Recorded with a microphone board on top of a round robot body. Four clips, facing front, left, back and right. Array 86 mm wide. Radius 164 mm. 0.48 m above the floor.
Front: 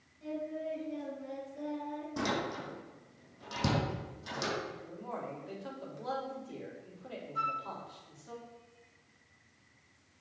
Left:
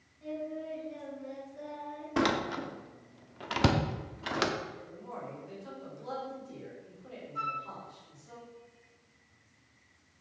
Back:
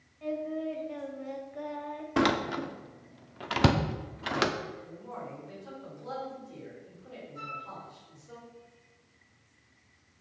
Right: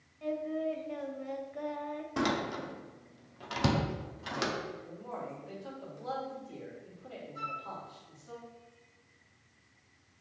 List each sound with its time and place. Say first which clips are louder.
0.2 s singing: right 4 dB, back 5 dB; 130° right, 1.5 m
2.2 s a door slam: left 3 dB, back 9 dB; 150° left, 0.8 m
4.8 s a man speaking: right 1 dB, front 1 dB; 15° right, 3 m
7.3 s a flute: left 5 dB, front 7 dB; 40° left, 3.5 m